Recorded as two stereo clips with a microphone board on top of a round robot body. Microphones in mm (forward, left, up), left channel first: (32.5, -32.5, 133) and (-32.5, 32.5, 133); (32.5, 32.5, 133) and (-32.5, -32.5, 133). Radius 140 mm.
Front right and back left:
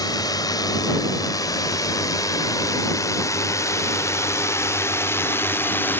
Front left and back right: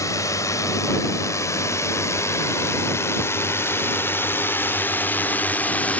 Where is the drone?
5° right; by 6.0 s 10° right.